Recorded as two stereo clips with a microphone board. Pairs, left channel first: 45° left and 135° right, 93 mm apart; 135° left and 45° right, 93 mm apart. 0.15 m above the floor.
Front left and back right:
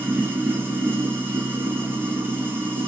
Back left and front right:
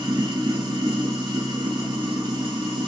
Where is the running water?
70° right, 0.8 m.